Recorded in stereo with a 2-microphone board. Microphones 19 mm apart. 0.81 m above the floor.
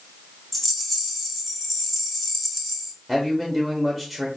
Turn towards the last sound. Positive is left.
turn(degrees=20)  # may be behind; listen again after turning